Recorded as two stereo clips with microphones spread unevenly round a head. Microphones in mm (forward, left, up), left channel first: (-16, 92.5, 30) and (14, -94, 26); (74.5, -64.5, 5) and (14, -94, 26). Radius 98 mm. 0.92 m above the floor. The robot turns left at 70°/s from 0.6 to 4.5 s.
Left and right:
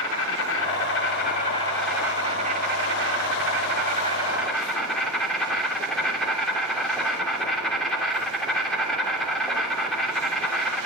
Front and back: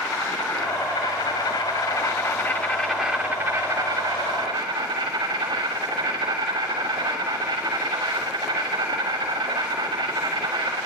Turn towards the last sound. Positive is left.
turn(degrees=-175)